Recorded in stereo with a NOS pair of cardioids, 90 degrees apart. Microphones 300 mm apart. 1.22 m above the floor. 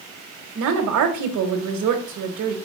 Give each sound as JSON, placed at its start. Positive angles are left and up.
{"t": 0.6, "sound": "a woman speaking", "azimuth_deg": -70, "distance_m": 1.5}